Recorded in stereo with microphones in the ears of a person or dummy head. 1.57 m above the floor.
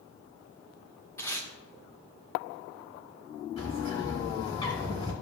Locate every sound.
1.2 s tape being pulled: 20° left (ahead or behind), 1.7 m
3.6 s a bird: 30° left (ahead or behind), 3.5 m